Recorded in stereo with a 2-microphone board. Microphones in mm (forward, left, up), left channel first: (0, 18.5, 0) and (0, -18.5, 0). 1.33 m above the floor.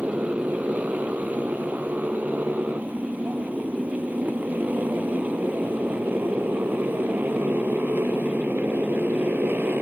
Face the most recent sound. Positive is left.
turn(degrees=-70)  # may be behind; listen again after turning